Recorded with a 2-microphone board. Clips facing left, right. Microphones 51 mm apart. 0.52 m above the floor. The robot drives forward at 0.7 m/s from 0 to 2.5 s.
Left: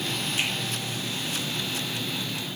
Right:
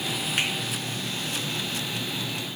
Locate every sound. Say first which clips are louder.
0.4 s a finger snap: right 2 dB; 65° right (ahead or behind), 5 m